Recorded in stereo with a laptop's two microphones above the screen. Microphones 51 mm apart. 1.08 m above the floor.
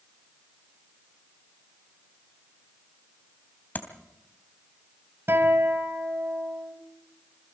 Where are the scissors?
No scissors in this recording.